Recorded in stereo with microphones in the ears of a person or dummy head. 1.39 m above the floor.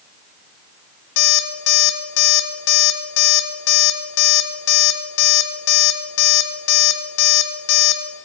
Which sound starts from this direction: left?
An alarm clock, at 1.2 s.